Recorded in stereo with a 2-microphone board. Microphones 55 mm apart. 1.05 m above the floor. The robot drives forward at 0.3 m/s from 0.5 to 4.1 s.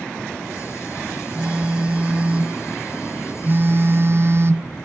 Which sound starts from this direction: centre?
A phone buzzing, at 1.3 s.